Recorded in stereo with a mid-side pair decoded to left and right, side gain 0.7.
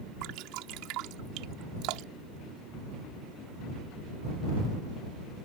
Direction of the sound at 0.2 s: 65° right.